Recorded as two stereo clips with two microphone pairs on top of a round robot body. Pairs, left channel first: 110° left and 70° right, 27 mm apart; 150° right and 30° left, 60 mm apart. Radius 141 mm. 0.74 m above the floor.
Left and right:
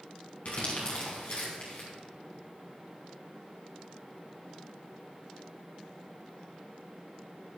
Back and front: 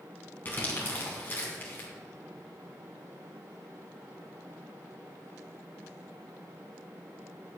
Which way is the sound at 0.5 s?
150° left.